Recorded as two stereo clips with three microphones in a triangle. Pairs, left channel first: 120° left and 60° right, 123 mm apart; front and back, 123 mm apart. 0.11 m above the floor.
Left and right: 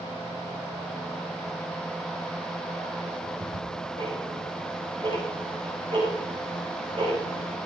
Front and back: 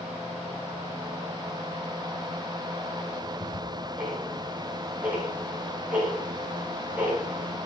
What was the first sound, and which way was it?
Ticking, 105° right.